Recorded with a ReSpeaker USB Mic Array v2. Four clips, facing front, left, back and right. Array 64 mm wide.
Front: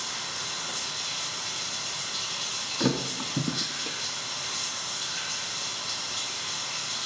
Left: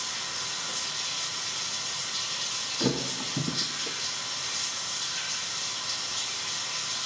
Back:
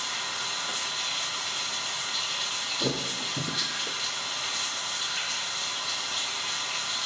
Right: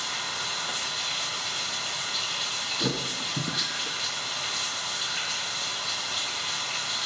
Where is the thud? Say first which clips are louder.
Left 3 dB, front 5 dB; 10° right, 1.4 m.